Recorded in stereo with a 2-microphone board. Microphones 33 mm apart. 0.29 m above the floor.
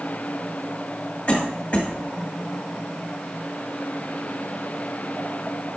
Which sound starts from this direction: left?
A cough, at 1.3 s.